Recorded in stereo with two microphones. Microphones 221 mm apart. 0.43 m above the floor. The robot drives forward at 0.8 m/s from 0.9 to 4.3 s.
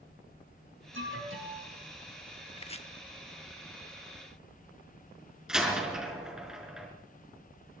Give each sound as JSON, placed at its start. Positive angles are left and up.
{"t": 0.9, "sound": "an alarm", "side_deg": -60, "distance_m": 8.5}
{"t": 2.6, "sound": "chopping", "side_deg": 25, "distance_m": 0.8}
{"t": 5.5, "sound": "a door slam", "side_deg": -5, "distance_m": 5.0}